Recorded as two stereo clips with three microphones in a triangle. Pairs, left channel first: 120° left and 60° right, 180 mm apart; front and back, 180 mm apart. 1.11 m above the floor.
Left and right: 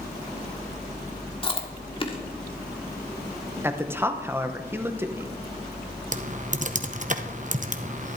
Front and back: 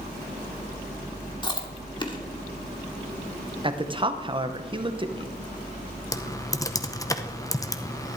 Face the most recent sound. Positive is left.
turn(degrees=-65)